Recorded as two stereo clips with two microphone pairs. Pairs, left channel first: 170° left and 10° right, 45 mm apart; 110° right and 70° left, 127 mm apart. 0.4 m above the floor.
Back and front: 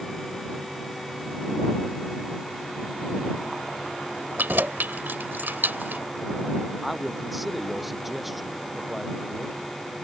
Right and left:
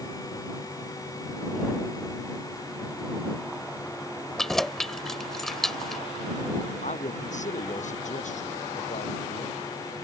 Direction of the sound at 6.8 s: 100° right.